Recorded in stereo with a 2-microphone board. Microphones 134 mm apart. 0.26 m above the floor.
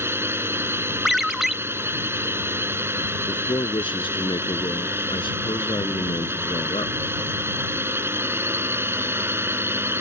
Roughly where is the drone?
Centre.